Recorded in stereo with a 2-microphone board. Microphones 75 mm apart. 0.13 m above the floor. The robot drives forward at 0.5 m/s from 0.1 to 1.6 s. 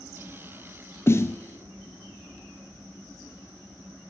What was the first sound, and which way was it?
A snare drum, 35° left (ahead or behind).